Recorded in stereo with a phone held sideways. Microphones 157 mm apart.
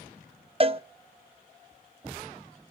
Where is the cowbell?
35° right (ahead or behind), 0.6 m.